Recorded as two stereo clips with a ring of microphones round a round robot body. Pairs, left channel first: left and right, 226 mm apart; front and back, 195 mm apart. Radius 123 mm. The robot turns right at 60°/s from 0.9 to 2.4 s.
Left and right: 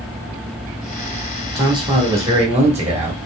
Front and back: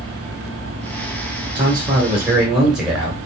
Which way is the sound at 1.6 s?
145° right.